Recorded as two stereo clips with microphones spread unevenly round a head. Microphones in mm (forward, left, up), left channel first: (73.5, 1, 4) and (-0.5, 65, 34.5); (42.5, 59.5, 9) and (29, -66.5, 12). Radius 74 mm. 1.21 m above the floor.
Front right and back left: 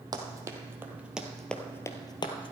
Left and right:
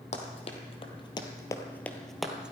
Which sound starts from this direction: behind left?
Running footsteps, at 0.1 s.